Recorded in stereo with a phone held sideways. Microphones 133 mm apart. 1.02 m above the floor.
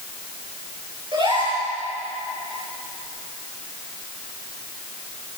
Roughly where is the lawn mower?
I don't hear a lawn mower.